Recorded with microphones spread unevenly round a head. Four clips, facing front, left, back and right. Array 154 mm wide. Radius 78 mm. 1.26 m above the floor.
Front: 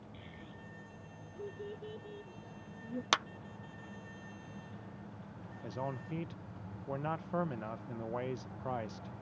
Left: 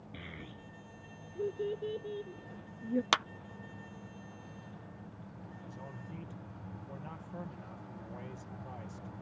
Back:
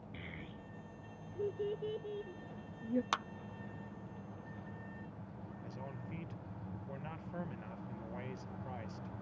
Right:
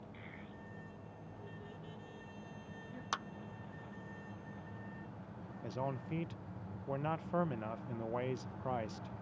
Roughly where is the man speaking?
Ahead right.